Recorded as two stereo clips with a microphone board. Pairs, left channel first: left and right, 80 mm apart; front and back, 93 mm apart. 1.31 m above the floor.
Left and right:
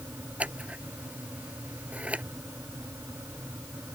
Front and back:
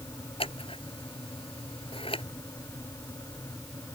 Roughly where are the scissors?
Ahead.